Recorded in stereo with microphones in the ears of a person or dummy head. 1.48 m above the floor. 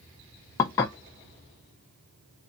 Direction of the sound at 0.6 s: 10° left (ahead or behind).